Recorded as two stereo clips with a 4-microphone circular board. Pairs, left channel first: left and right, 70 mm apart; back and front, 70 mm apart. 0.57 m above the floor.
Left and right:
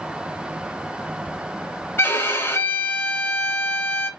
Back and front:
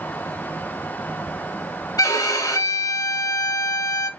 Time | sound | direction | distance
2.0 | a violin | 145° left | 0.7 m